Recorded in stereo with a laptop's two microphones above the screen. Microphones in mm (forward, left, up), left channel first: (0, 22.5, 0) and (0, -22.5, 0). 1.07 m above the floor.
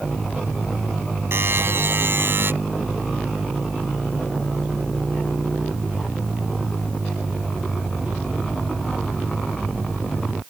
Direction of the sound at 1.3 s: 55° right (ahead or behind).